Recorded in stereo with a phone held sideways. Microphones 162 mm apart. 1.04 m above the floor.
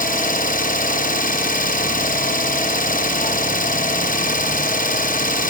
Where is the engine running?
60° left (ahead or behind), 0.7 m.